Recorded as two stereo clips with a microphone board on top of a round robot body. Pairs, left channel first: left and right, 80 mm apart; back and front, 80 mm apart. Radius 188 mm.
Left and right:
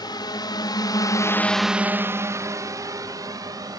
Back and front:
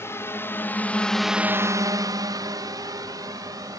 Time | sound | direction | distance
0.0 | a drone | 120° left | ?